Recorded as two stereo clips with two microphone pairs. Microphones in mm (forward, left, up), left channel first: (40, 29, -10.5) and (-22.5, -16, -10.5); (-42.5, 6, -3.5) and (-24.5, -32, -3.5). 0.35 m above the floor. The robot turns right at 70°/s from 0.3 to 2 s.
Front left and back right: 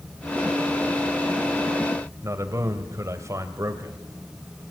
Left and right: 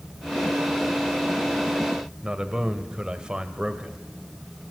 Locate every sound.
2.2 s a man speaking: 125° right, 1.8 m